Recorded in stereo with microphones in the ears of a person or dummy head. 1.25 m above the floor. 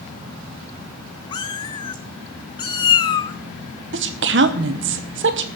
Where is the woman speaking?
55° right (ahead or behind), 1.0 m.